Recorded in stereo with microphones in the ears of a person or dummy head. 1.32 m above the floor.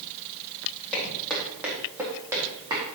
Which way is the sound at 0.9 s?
5° left (ahead or behind).